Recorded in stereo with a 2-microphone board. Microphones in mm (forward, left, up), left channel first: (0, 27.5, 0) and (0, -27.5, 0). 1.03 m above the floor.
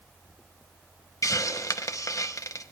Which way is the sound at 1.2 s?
75° left (ahead or behind).